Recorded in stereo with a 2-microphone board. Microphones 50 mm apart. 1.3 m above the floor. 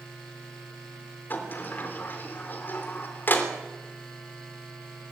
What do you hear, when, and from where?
1.3 s a sliding door: 40° left (ahead or behind), 3 m